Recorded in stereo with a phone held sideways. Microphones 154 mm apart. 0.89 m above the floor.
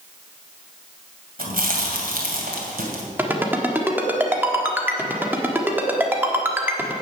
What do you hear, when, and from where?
1.4 s chewing: 75° right (ahead or behind), 2.5 m
3.2 s a ringtone: 15° right (ahead or behind), 1.4 m